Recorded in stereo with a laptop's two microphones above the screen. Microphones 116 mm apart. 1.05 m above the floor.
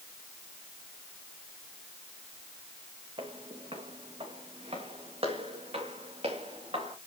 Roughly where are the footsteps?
Right.